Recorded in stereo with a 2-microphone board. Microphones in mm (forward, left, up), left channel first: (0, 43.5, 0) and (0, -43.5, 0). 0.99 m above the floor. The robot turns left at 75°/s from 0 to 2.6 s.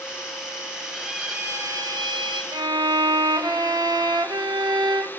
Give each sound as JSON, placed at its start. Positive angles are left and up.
{"t": 0.9, "sound": "a violin", "azimuth_deg": 0, "distance_m": 1.2}
{"t": 2.5, "sound": "a violin", "side_deg": -55, "distance_m": 0.8}